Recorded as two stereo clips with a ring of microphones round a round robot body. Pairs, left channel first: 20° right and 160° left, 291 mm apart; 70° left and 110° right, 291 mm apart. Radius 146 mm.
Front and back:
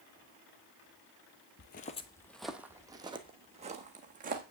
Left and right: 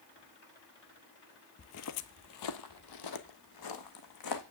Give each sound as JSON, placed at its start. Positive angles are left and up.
{"t": 1.6, "sound": "footsteps", "azimuth_deg": 25, "distance_m": 0.5}